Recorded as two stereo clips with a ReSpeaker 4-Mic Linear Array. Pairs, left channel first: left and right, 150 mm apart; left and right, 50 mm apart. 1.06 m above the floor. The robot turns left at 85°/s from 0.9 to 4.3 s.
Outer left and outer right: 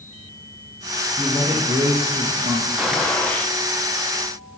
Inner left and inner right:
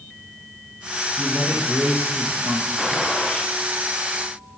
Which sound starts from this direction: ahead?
A man speaking, at 1.2 s.